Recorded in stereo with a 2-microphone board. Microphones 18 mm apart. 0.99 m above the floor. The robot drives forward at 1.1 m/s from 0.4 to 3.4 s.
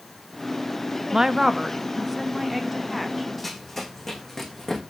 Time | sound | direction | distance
1.1 | a woman speaking | 30° right (ahead or behind) | 0.6 m
3.4 | running footsteps | 5° left (ahead or behind) | 2.5 m